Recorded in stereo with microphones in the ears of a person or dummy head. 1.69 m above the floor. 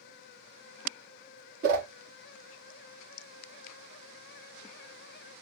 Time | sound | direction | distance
1.6 | a whoosh | 50° right (ahead or behind) | 1.3 m